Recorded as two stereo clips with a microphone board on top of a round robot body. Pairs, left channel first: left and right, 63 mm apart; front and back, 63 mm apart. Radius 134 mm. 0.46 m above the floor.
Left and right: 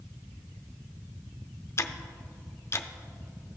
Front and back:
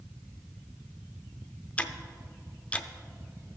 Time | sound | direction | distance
1.8 | ticking | 65° left | 0.6 m